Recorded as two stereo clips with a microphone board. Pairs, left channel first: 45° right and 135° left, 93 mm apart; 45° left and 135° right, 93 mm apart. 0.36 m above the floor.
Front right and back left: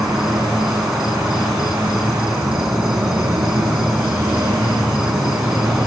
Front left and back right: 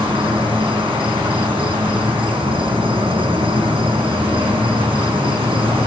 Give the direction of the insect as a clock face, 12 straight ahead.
5 o'clock.